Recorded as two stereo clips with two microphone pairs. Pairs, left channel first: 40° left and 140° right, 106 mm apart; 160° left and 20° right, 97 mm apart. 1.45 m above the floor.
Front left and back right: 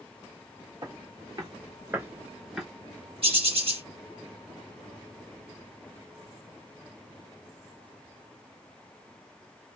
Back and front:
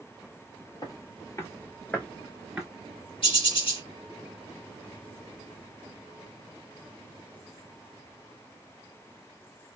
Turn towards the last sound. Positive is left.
turn(degrees=-175)